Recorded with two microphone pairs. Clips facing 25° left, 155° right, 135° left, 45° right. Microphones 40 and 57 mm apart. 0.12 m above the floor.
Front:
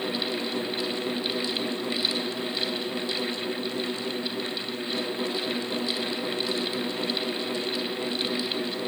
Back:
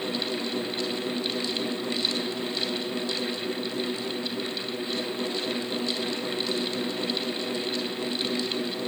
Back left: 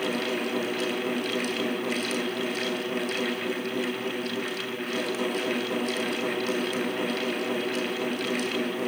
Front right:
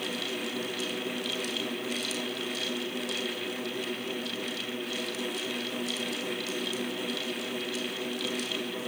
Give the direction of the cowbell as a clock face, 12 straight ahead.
No cowbell in this recording.